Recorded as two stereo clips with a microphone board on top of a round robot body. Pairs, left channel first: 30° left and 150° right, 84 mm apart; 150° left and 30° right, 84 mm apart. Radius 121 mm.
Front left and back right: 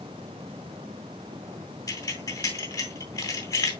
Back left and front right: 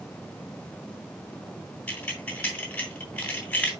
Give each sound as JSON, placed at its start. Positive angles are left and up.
{"t": 1.9, "sound": "keys jangling", "azimuth_deg": 75, "distance_m": 3.0}